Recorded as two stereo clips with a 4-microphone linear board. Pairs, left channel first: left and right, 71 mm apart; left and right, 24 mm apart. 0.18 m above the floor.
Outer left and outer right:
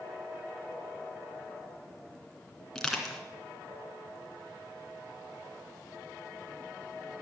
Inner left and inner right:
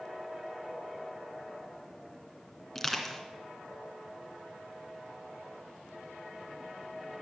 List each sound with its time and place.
2.8 s crushing: 5° left (ahead or behind), 2.5 m